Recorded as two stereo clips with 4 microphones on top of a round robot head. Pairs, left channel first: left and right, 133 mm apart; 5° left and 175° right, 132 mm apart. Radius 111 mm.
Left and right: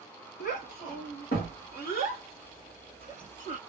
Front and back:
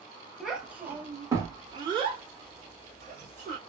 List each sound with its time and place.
0.4 s a child speaking: 95° left, 1.4 m; by 3.6 s 155° left, 2 m